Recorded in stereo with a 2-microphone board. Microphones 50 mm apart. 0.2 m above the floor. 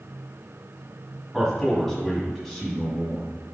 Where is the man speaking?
10° left (ahead or behind), 1.4 m.